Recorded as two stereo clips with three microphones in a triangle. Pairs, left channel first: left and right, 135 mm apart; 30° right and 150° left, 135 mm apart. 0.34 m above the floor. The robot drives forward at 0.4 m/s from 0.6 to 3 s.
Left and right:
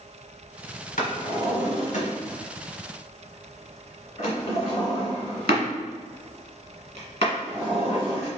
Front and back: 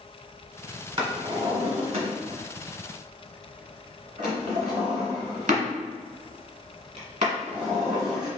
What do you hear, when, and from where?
1.0 s a drawer: 95° left, 1.1 m; by 8.3 s 130° left, 1.5 m